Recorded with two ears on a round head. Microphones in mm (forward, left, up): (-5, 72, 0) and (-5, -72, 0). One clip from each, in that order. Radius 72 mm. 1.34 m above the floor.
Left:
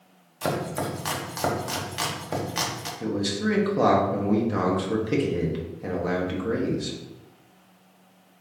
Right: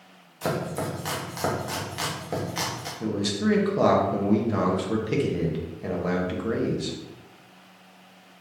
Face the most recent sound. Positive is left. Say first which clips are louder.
# even
turn(degrees=-5)  # may be behind; listen again after turning